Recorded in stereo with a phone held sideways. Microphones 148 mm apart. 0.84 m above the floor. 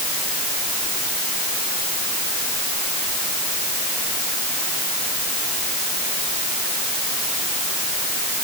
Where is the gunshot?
I don't hear a gunshot.